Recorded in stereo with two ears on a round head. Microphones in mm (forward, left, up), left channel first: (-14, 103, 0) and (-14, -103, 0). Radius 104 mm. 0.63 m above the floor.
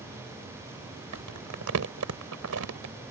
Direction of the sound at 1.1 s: 75° right (ahead or behind).